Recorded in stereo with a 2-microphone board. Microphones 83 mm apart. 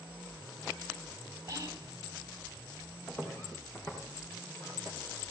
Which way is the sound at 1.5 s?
35° right (ahead or behind).